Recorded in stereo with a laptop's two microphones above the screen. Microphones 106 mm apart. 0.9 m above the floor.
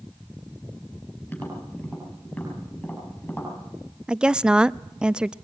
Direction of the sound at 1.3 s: 20° left (ahead or behind).